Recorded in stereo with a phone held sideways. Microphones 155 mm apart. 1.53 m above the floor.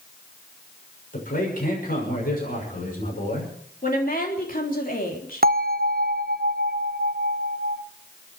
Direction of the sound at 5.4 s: 70° right (ahead or behind).